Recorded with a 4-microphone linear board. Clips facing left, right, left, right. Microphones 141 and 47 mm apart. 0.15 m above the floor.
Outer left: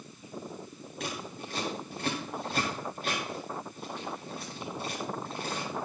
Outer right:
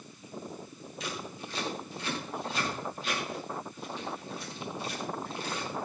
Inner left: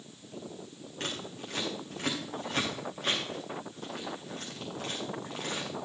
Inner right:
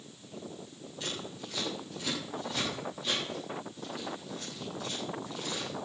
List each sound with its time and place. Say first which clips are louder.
1.0 s scissors: outer left 1 dB, inner left 1 dB; 55° left (ahead or behind), 7 m